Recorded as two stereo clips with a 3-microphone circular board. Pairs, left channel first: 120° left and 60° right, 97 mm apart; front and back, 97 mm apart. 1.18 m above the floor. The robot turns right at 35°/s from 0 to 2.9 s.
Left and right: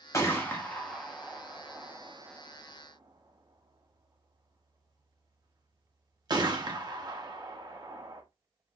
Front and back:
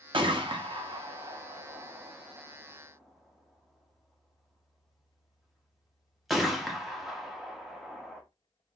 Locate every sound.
0.1 s a gunshot: 170° left, 0.8 m; by 8.2 s 90° right, 0.8 m